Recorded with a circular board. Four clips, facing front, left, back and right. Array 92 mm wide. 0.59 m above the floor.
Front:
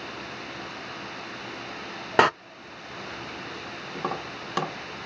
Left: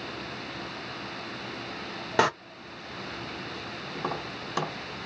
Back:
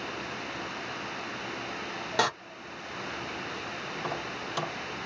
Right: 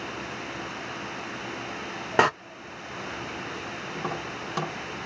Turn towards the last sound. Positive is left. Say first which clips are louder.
# even, front 5 dB
turn(degrees=5)